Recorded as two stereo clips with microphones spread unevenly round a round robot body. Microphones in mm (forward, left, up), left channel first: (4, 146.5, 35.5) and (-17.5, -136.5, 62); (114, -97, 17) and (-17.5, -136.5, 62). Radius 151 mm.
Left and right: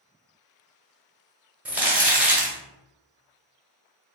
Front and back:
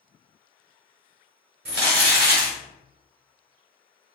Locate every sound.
1.6 s crumpling: straight behind, 1.0 m